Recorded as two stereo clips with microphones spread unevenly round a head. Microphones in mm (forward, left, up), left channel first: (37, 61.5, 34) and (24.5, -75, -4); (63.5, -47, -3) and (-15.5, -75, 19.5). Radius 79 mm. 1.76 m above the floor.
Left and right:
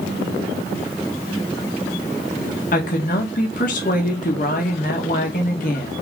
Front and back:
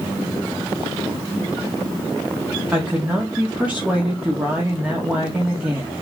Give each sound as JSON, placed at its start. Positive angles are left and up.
{"t": 2.7, "sound": "a woman speaking", "azimuth_deg": 120, "distance_m": 2.0}